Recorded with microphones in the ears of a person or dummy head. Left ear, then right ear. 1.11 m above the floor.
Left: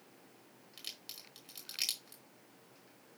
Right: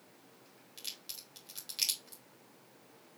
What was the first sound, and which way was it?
A crack, 20° left (ahead or behind).